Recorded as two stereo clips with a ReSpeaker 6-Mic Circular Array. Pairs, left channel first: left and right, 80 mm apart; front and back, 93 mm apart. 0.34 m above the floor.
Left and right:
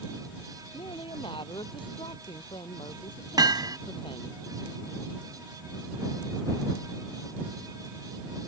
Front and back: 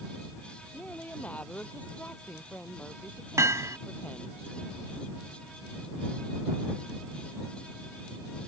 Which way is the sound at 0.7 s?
75° left.